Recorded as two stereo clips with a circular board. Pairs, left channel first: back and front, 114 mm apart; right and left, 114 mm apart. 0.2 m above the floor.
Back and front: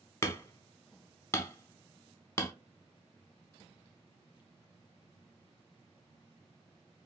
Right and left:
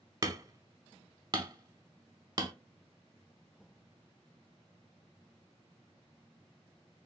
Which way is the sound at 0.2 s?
125° left.